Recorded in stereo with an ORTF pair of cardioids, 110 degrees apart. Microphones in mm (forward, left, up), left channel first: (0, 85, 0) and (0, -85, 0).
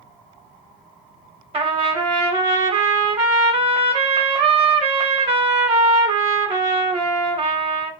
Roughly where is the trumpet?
Ahead right.